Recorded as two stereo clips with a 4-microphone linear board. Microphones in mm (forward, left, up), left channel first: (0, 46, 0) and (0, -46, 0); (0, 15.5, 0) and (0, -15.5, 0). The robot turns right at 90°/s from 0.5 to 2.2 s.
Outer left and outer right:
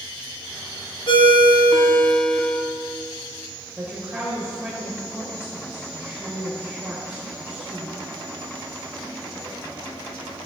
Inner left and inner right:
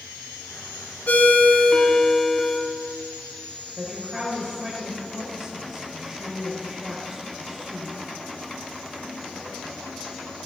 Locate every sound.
1.1 s a ringtone: 70° left, 0.9 m; by 2.6 s 170° left, 0.9 m
3.8 s a woman speaking: 15° right (ahead or behind), 1.2 m